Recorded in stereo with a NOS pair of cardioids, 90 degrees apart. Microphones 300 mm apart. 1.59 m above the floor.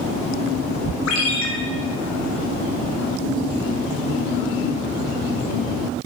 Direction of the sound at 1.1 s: 70° left.